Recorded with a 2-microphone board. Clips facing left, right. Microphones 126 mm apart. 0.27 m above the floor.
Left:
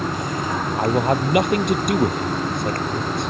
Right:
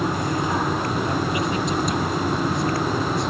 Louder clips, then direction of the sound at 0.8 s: Left 5 dB; 60° left (ahead or behind).